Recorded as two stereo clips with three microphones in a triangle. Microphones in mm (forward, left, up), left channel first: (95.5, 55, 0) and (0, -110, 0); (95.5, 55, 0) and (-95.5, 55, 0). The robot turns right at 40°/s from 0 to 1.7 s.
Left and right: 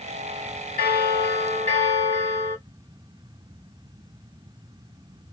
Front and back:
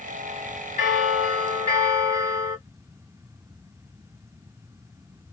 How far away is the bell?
About 2 m.